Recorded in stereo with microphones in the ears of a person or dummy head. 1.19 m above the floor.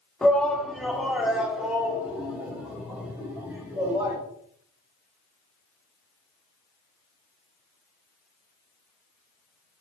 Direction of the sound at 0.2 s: 5° left (ahead or behind).